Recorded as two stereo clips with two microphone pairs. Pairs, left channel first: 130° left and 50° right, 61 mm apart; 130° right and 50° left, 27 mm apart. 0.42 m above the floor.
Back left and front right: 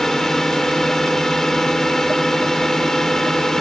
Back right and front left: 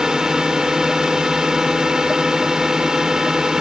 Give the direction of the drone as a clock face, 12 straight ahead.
10 o'clock.